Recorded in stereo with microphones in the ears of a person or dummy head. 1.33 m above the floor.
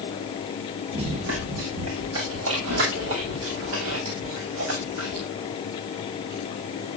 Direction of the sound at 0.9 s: 75° right (ahead or behind).